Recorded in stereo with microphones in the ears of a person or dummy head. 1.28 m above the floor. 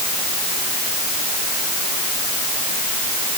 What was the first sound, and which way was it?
Only background noise.